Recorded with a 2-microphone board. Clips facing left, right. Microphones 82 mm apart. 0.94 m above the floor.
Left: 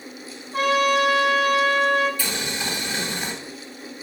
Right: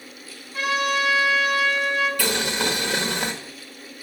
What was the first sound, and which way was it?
A trumpet, 50° left (ahead or behind).